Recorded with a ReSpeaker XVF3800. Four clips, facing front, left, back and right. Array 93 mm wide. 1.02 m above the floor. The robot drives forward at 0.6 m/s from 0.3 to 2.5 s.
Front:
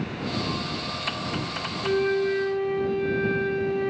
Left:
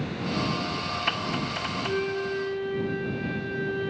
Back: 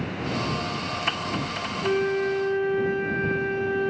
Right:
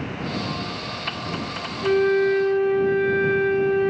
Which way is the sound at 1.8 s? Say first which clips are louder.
Right 12 dB, front 1 dB; 105° right.